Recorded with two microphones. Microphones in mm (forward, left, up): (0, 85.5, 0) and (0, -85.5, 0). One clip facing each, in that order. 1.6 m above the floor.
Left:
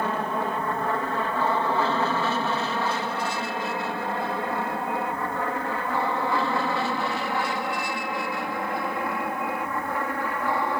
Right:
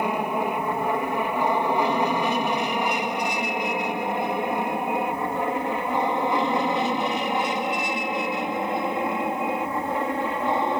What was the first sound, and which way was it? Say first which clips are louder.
An aircraft: right 2 dB; 15° right (ahead or behind).